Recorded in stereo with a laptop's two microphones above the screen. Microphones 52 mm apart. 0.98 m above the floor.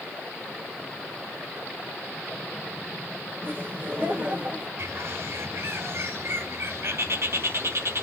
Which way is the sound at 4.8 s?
60° right (ahead or behind).